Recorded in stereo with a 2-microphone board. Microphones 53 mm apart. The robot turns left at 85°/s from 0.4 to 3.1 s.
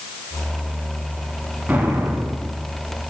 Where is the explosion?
35° right, 0.9 m; by 2.6 s 115° right, 0.9 m.